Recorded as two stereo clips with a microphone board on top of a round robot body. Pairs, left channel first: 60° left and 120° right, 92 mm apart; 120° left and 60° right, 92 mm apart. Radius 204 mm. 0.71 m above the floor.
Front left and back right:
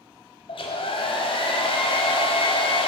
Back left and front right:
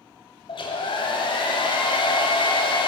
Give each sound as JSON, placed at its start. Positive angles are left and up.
{"t": 0.5, "sound": "a hair dryer", "azimuth_deg": 85, "distance_m": 1.1}